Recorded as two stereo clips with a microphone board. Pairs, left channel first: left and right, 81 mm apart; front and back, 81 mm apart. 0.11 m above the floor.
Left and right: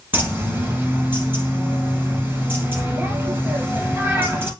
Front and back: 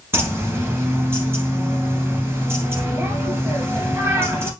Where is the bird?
140° right, 2 m.